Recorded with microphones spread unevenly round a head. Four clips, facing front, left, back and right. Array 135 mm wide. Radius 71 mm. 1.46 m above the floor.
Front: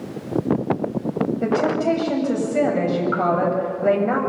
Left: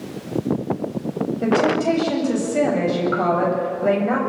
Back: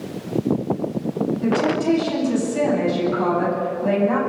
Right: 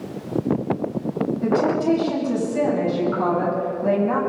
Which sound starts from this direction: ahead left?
A woman speaking, at 1.4 s.